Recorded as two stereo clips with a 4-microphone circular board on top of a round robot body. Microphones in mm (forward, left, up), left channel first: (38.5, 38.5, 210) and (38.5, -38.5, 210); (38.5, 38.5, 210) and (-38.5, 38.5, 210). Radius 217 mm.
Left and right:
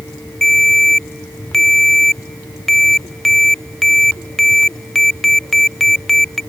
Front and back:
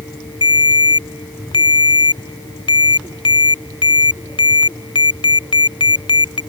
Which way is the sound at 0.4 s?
5° left.